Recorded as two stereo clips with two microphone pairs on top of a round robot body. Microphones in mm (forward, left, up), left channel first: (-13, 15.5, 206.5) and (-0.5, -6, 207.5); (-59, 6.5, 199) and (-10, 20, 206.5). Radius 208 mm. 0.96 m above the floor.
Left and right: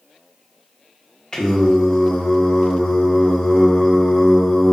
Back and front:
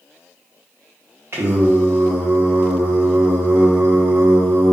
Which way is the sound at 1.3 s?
55° left.